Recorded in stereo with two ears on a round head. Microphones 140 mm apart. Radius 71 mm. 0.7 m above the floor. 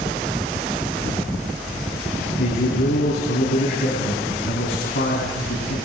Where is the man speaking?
75° left (ahead or behind), 8 m.